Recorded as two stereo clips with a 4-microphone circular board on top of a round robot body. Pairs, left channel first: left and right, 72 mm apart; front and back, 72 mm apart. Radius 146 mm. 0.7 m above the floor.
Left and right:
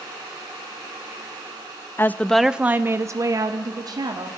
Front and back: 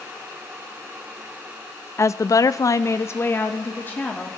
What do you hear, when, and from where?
2.0 s a woman speaking: 40° left, 0.6 m; by 4.3 s 70° right, 1.5 m